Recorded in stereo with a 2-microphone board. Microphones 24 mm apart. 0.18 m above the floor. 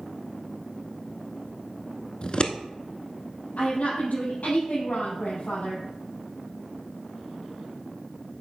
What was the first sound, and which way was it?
Scissors, 40° left (ahead or behind).